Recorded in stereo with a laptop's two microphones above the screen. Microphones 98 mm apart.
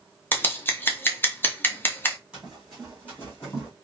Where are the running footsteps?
10° right (ahead or behind), 2 m; by 3.7 s 35° left (ahead or behind), 2.5 m.